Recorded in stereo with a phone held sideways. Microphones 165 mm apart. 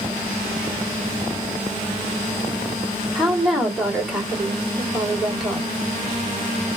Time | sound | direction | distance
3.1 | a woman speaking | centre (ahead or behind) | 2.5 m